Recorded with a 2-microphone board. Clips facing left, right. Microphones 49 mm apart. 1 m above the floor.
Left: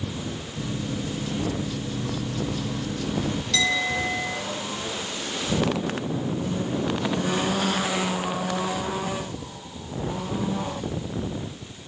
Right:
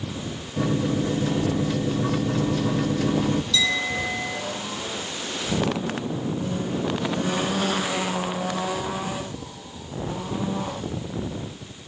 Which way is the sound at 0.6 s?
70° right (ahead or behind).